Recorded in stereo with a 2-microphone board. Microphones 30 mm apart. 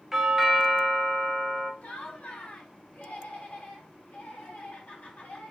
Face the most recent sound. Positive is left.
turn(degrees=60)  # may be behind; listen again after turning